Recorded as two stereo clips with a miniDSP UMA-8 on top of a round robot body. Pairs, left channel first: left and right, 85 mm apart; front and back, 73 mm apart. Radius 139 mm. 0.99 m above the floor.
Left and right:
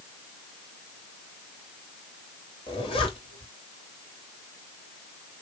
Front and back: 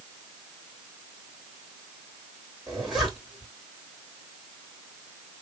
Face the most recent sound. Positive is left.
turn(degrees=95)